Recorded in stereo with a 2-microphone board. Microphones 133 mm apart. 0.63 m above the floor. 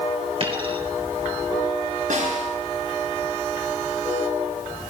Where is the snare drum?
80° right, 8 m.